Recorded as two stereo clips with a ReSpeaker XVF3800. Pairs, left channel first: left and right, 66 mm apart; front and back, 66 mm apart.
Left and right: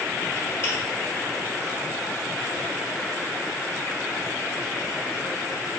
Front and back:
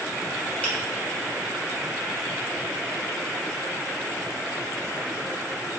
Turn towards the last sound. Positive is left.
turn(degrees=60)